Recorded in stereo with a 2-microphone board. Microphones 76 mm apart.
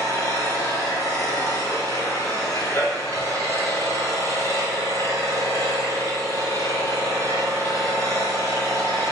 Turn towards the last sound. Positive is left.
turn(degrees=45)  # may be behind; listen again after turning